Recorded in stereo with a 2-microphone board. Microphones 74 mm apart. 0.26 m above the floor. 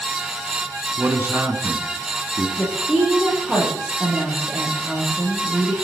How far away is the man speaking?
About 3 m.